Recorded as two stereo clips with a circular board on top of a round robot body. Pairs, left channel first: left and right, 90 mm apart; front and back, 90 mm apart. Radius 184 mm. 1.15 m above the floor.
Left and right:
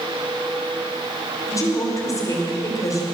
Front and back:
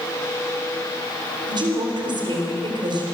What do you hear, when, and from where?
1.5 s a woman speaking: 145° left, 5 m